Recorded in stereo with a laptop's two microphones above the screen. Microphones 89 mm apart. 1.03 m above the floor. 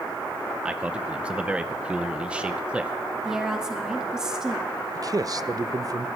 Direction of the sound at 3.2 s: 5° right (ahead or behind).